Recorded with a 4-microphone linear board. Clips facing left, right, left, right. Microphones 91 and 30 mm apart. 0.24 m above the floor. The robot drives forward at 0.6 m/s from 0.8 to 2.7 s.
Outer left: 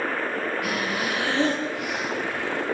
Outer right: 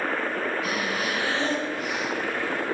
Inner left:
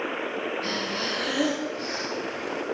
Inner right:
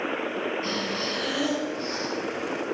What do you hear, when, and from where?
0.6 s breathing: 70° left (ahead or behind), 3 m; by 2.1 s 75° left (ahead or behind), 3 m